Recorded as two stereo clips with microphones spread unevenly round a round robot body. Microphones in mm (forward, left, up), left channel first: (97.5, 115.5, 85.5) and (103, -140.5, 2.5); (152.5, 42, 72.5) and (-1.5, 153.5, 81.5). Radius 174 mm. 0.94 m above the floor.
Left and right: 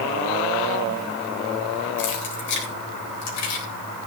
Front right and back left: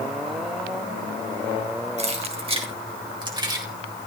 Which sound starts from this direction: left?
Keys jangling, at 2.0 s.